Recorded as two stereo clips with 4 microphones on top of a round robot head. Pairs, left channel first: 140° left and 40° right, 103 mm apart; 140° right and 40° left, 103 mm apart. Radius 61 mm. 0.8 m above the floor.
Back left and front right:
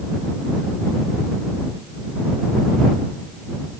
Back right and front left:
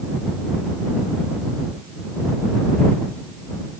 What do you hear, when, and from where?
Only background noise.